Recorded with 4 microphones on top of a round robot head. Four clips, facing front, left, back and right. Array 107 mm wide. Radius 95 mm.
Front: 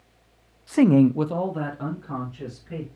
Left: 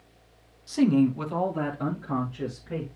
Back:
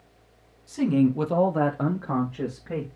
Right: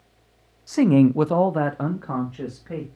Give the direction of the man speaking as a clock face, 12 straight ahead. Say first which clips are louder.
Right 5 dB, front 5 dB; 1 o'clock.